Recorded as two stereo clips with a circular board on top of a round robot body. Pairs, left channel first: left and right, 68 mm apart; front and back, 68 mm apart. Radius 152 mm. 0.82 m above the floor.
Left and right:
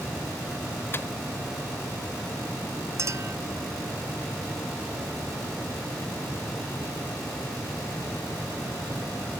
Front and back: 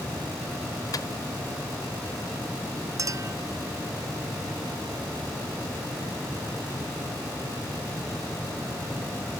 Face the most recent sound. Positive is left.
turn(degrees=-135)